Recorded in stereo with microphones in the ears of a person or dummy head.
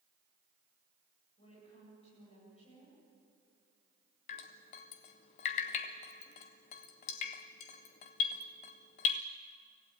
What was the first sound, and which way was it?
A woman speaking, 30° left (ahead or behind).